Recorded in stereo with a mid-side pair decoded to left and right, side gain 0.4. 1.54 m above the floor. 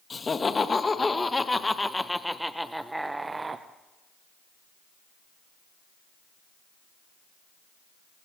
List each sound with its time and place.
0.1 s laughter: 35° left, 2.5 m; by 3.6 s 35° right, 1.2 m